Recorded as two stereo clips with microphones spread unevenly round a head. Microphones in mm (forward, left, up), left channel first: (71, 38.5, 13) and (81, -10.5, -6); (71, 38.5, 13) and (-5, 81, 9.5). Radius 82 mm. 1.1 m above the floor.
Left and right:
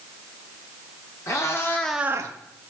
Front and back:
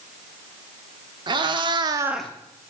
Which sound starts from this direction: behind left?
A cat meowing, at 1.3 s.